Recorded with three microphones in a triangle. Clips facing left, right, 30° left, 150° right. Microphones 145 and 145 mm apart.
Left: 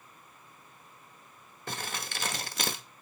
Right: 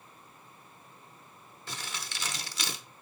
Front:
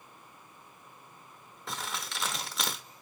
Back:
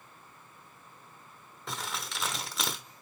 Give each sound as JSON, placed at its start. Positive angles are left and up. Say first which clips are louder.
{"t": 1.7, "sound": "crumpling", "louder": "left 4 dB, even", "azimuth_deg": 120, "distance_m": 0.8}